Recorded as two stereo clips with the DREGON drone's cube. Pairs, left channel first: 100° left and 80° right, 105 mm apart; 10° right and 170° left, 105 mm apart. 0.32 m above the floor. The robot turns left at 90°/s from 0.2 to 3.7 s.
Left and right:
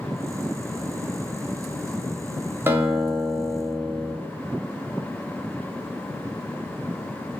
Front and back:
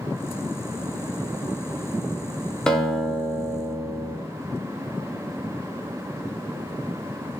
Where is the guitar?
85° right, 0.6 m; by 4.2 s 175° right, 0.6 m.